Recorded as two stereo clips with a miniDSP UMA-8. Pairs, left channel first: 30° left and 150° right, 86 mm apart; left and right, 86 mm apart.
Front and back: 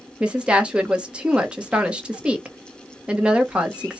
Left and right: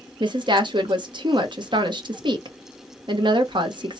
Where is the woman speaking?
70° right, 0.8 m.